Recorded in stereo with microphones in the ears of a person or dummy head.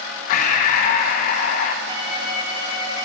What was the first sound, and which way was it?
Breathing, 50° left (ahead or behind).